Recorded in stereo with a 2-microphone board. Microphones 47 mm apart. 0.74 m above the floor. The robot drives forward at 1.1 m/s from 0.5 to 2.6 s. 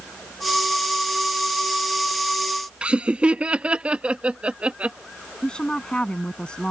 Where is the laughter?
25° right (ahead or behind).